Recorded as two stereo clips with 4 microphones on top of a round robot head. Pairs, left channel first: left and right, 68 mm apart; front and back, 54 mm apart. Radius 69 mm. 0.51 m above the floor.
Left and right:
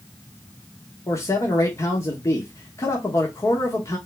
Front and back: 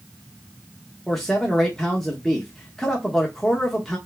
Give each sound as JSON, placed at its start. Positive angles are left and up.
{"t": 1.1, "sound": "a man speaking", "azimuth_deg": 80, "distance_m": 1.2}